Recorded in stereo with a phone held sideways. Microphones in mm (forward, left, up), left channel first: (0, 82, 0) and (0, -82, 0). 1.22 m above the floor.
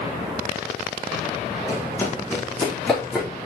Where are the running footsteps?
20° left (ahead or behind), 3.5 m; by 3.3 s centre (ahead or behind), 4 m.